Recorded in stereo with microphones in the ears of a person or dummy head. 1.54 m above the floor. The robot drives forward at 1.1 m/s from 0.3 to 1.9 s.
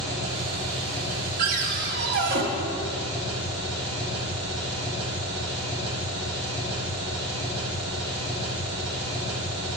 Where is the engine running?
50° right (ahead or behind), 3.5 m; by 9.8 s 35° right (ahead or behind), 5 m.